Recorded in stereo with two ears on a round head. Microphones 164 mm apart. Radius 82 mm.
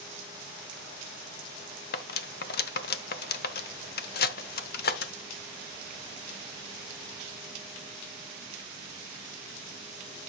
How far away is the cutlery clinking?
About 1.0 m.